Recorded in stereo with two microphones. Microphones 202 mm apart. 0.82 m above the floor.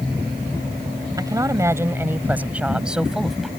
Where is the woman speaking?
20° right (ahead or behind); by 3.5 s centre (ahead or behind).